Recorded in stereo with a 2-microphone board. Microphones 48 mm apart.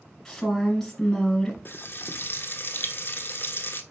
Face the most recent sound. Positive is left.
turn(degrees=45)  # may be behind; listen again after turning